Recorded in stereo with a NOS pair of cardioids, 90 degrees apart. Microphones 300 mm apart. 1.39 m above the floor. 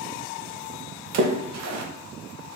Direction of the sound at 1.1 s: 65° right.